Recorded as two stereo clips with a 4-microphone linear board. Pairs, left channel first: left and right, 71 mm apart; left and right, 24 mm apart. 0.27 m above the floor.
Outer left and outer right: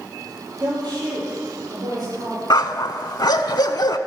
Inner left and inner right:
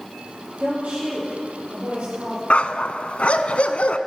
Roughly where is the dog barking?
Left.